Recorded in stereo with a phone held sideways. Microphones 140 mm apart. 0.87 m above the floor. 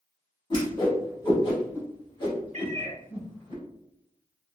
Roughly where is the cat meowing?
Right.